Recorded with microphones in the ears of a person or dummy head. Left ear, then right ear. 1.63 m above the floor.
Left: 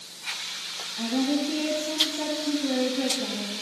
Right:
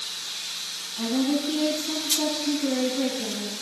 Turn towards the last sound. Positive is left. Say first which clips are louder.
# right 1 dB
turn(degrees=10)  # may be behind; listen again after turning